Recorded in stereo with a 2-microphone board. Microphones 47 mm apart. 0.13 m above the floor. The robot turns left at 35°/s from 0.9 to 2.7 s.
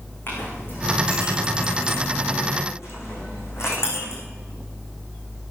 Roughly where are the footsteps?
No footsteps in this recording.